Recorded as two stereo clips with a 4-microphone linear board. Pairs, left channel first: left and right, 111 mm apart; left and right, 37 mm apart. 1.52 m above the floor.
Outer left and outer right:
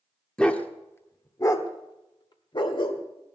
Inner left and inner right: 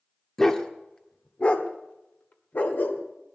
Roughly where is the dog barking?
Centre.